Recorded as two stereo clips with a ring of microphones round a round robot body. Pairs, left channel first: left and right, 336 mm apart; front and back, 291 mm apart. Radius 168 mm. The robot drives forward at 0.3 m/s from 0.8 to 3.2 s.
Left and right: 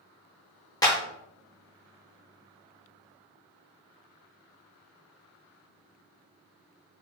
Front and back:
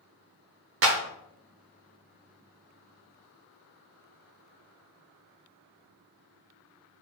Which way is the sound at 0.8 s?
165° left.